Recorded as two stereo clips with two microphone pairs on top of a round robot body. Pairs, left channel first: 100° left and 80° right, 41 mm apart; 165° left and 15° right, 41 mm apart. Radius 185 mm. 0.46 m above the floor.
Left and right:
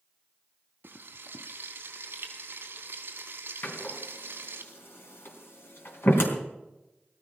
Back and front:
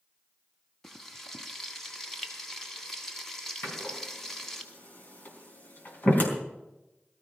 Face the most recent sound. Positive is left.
turn(degrees=120)